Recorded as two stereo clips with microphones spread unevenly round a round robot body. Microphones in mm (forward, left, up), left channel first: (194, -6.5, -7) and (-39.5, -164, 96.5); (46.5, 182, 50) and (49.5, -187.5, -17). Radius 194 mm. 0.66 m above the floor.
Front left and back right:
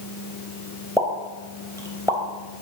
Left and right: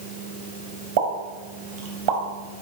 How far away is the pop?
About 3.5 m.